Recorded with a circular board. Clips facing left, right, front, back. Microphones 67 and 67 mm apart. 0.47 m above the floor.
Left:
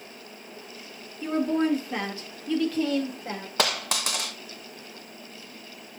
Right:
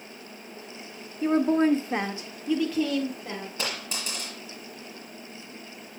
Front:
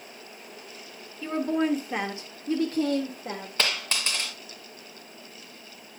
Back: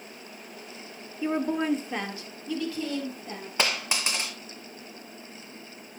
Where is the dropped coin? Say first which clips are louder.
Left 11 dB, back 2 dB; 105° left, 1.7 m.